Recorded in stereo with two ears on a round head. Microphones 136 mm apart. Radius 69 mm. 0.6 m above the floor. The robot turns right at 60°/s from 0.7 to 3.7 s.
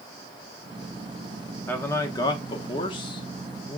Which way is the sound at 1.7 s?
20° left.